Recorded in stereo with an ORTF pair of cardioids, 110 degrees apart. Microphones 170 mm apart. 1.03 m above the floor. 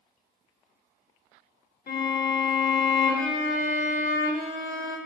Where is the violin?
55° left, 1.4 m.